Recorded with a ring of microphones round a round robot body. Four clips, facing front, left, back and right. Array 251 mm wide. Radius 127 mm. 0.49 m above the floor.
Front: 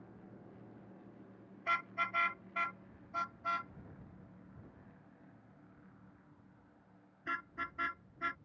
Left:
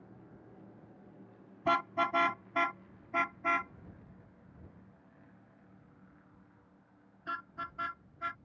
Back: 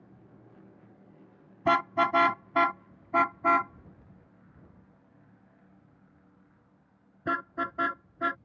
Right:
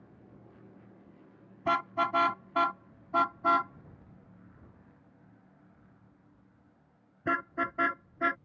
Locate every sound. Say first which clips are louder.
1.6 s a car horn: right 1 dB, back 13 dB; straight behind; by 8.4 s 130° right